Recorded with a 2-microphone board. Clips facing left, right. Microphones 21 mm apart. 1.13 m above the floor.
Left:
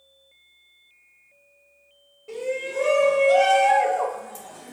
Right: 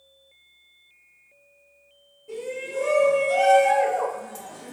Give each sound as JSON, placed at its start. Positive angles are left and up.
{"t": 2.3, "sound": "a shout", "side_deg": 55, "distance_m": 1.3}